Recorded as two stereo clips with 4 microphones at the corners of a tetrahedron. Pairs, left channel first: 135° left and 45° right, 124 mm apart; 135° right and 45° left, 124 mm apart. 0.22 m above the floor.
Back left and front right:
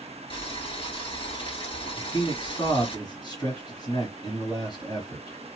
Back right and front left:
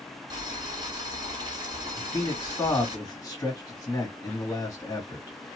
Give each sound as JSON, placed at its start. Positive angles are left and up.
{"t": 0.3, "sound": "boiling", "azimuth_deg": 95, "distance_m": 1.5}
{"t": 2.0, "sound": "a man speaking", "azimuth_deg": 170, "distance_m": 2.0}